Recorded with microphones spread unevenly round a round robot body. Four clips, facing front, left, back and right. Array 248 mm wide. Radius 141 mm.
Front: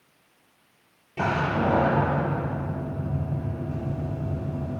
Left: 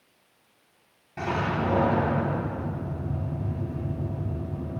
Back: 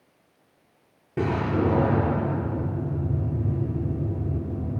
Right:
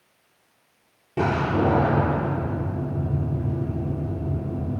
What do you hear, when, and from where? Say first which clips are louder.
1.2 s a door slam: right 5 dB, even; 145° right, 6 m